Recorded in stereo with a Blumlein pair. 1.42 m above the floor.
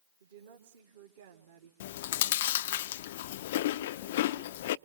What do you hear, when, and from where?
0.2 s a woman speaking: 60° right, 2.5 m
1.8 s chewing: 55° left, 0.6 m